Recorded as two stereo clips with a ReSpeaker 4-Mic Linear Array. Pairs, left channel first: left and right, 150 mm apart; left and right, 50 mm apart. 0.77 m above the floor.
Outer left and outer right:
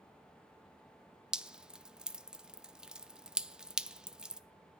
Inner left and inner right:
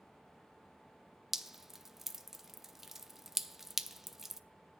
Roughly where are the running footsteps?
No running footsteps in this recording.